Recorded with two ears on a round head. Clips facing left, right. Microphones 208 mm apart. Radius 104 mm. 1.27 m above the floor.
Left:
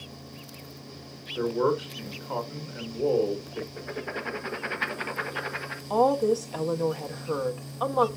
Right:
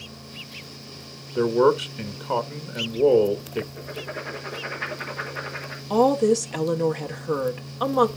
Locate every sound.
1.4 s a man speaking: 70° right (ahead or behind), 1.5 m
3.8 s writing: 60° left (ahead or behind), 1.4 m
5.9 s a woman speaking: 35° right (ahead or behind), 1.1 m